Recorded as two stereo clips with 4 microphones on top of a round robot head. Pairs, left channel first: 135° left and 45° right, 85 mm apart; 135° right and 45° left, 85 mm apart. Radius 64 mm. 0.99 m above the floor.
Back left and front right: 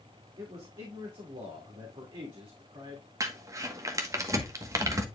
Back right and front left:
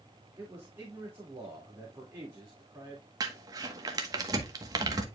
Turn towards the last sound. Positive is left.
turn(degrees=5)